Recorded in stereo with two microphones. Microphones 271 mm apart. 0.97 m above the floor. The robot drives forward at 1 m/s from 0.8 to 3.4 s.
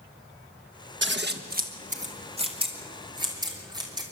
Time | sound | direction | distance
1.0 | scissors | 45° right (ahead or behind) | 1.2 m